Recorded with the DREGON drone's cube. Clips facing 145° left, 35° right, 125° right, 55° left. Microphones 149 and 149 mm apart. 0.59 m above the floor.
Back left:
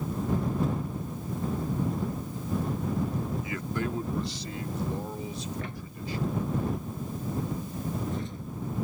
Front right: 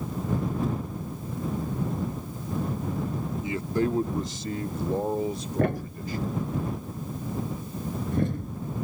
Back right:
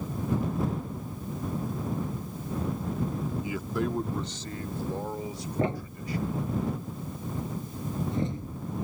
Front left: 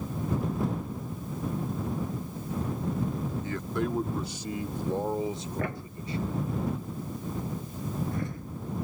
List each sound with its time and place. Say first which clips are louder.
3.4 s a man speaking: front right 6 dB, even; 60° right; by 6.4 s straight ahead
5.6 s a thud: front right 11 dB, back right 5 dB; 60° right